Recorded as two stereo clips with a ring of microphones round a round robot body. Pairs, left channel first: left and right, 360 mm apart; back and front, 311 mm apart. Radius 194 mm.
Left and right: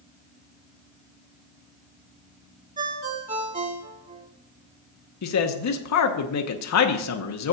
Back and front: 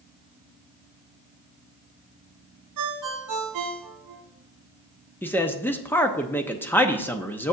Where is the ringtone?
20° right, 1.4 m.